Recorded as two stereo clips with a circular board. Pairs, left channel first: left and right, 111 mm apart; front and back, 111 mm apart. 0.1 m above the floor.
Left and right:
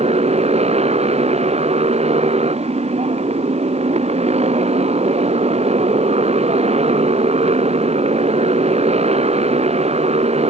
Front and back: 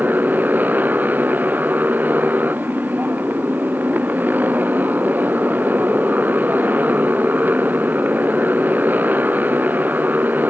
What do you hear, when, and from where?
0.0 s a motorcycle: 105° right